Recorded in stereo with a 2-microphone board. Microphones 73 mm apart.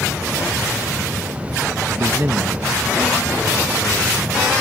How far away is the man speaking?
About 0.6 m.